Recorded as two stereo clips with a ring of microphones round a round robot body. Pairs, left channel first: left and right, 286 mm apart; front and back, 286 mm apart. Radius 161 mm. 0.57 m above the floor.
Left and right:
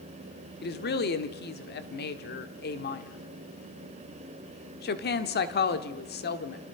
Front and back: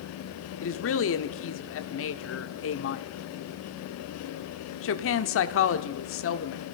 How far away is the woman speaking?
About 1.4 m.